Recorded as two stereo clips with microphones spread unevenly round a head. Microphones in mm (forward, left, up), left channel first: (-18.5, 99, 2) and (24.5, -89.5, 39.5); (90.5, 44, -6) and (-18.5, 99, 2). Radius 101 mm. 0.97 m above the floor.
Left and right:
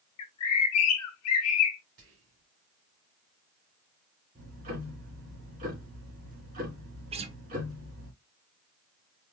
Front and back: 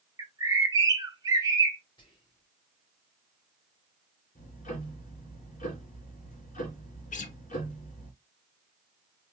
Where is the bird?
95° left, 0.8 m.